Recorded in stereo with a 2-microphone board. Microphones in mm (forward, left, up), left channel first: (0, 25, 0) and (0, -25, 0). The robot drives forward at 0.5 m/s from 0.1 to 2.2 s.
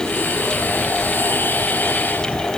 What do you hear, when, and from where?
Only background noise.